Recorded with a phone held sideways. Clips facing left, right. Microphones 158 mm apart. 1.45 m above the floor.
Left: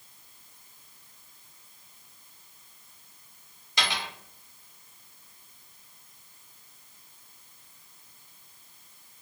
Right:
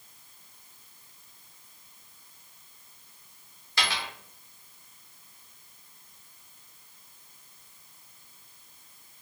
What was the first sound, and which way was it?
A dropped coin, 15° left (ahead or behind).